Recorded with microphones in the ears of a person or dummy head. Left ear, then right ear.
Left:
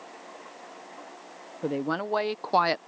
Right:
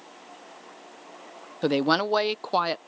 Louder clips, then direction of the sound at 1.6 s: Right 7 dB; 55° right (ahead or behind).